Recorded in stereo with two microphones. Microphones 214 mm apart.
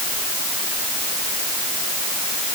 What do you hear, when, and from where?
Only background noise.